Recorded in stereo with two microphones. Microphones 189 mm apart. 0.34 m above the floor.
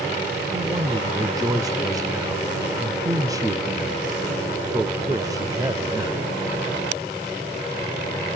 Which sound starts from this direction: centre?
A man speaking, at 0.5 s.